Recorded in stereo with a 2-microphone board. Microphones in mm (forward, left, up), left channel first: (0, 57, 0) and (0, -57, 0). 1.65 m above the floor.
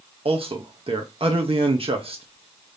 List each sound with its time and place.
0.2 s a man speaking: 60° right (ahead or behind), 0.8 m